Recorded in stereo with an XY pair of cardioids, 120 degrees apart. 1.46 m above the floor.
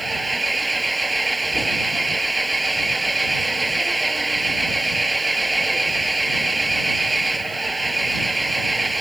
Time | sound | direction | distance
0.0 | an engine running | 10° right | ?